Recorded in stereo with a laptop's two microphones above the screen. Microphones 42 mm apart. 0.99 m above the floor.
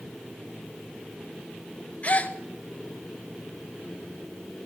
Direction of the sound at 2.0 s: 35° left (ahead or behind).